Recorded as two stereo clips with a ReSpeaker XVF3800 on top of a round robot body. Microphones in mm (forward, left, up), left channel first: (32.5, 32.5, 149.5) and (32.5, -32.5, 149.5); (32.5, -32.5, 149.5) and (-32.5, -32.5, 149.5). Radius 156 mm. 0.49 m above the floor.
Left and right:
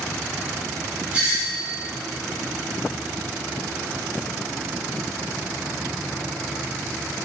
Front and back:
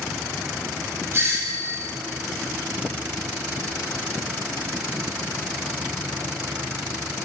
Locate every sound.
1.1 s a doorbell: 155° right, 1.4 m